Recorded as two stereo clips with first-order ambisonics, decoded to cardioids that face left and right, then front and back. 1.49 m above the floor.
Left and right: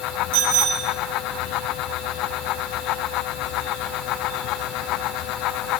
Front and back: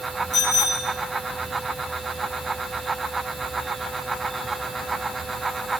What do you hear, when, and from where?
0.3 s a bicycle bell: 85° right, 6 m